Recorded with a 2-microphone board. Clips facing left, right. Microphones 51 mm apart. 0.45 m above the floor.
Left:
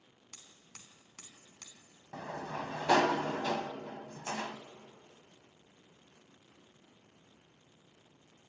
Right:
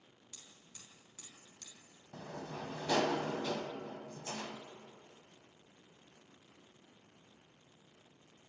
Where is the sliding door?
85° left, 1.1 m.